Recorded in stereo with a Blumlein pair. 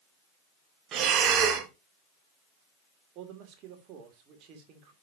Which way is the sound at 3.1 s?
35° right.